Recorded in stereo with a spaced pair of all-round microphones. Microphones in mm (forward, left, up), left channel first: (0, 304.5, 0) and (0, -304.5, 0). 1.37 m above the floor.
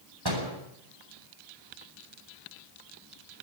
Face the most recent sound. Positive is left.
turn(degrees=-40)  # may be behind; listen again after turning